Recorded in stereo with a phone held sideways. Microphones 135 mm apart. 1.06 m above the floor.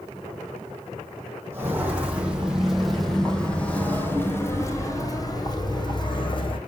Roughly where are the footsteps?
Centre.